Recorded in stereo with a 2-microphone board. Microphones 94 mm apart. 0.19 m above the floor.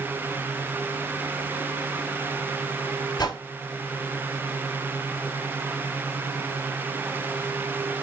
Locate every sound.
3.2 s a whoosh: 50° left (ahead or behind), 0.7 m